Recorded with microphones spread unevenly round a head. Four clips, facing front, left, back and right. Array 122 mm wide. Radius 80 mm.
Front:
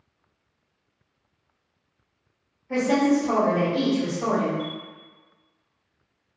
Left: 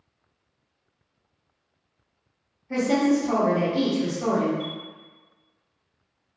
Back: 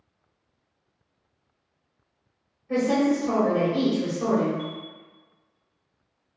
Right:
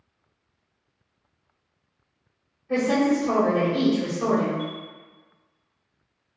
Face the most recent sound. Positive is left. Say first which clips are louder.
# right 1 dB, front 2 dB
turn(degrees=-125)